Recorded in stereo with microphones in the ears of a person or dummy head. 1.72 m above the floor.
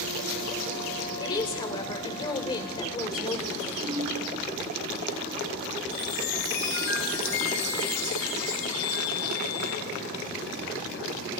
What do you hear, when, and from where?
1.2 s a woman speaking: 35° left (ahead or behind), 1.2 m
3.8 s a ringtone: 50° right (ahead or behind), 6 m
5.9 s a chime: 75° left (ahead or behind), 4.5 m